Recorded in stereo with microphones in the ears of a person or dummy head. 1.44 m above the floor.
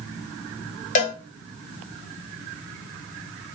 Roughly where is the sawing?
No sawing in this recording.